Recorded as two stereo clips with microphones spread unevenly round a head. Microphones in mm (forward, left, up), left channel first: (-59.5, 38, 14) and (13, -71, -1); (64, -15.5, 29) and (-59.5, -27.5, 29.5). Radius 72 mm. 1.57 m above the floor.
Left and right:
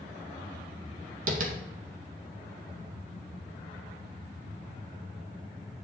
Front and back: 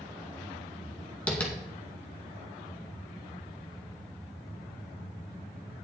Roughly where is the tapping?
Right.